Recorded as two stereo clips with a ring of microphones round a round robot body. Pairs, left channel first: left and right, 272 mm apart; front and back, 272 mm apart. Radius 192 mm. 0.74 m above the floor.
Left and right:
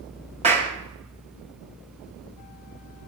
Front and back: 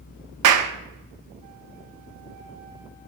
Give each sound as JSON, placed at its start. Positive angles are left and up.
{"t": 0.4, "sound": "a clap", "azimuth_deg": -165, "distance_m": 0.8}